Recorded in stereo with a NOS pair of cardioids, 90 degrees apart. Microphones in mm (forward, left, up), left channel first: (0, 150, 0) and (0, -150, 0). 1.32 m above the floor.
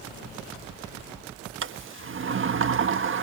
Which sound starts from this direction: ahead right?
A sliding door, at 1.6 s.